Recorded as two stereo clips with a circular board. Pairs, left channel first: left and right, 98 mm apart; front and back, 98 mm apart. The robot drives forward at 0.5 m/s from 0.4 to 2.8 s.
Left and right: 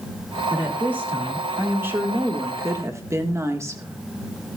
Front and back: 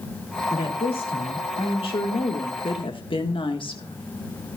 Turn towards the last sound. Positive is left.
turn(degrees=-30)